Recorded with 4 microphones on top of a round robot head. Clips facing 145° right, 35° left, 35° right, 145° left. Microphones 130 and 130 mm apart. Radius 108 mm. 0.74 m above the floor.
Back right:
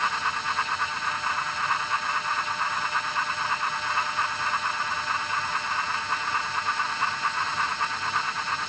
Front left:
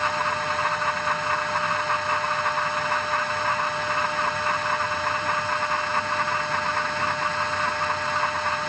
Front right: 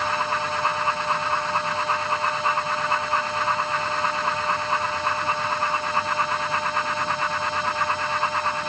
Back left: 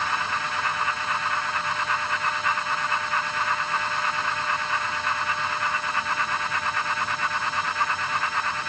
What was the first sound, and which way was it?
Only background noise.